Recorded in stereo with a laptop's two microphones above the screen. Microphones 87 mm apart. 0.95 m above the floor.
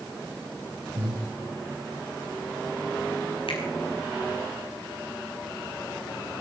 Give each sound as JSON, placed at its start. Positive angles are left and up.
{"t": 0.9, "sound": "breathing", "side_deg": -85, "distance_m": 8.5}
{"t": 3.5, "sound": "a finger snap", "side_deg": 85, "distance_m": 4.5}